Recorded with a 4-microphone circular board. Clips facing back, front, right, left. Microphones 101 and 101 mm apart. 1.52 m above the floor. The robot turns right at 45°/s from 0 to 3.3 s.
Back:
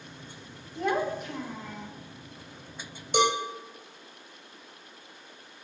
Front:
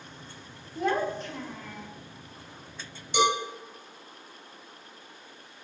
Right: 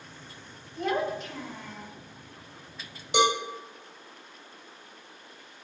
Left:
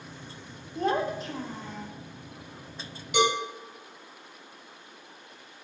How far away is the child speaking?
About 1.0 m.